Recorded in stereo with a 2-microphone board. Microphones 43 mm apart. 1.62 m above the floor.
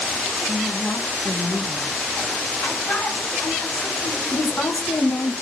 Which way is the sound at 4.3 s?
80° left.